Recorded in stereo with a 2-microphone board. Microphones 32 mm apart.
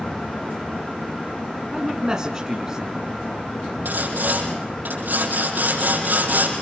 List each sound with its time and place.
1.7 s a man speaking: 20° right (ahead or behind), 1.7 m
3.9 s sawing: 75° right (ahead or behind), 5.5 m